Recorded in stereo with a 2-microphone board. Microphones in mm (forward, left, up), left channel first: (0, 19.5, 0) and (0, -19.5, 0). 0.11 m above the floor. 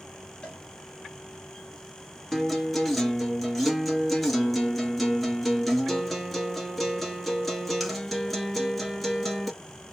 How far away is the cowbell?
About 1.8 m.